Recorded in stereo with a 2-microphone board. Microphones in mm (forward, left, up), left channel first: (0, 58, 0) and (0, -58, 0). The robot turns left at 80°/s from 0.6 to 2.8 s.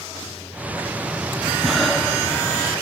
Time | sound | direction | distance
1.6 | breathing | 170° right | 0.7 m